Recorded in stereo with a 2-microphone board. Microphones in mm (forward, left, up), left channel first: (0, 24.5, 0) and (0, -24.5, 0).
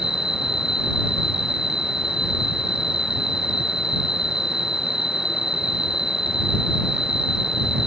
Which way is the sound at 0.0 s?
15° right (ahead or behind).